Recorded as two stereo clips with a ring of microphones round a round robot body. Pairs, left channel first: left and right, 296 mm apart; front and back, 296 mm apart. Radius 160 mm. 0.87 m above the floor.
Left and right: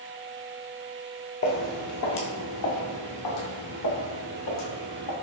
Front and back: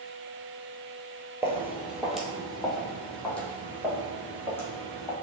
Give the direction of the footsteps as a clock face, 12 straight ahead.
9 o'clock.